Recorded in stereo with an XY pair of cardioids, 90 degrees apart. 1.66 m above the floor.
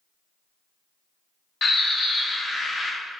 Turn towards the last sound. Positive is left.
turn(degrees=55)